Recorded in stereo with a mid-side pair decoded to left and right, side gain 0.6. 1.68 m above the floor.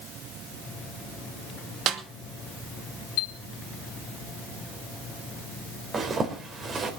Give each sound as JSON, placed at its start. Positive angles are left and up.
{"t": 1.9, "sound": "a snare drum", "azimuth_deg": -60, "distance_m": 2.5}
{"t": 3.2, "sound": "a chime", "azimuth_deg": 70, "distance_m": 1.3}
{"t": 5.9, "sound": "a zipper", "azimuth_deg": -35, "distance_m": 4.0}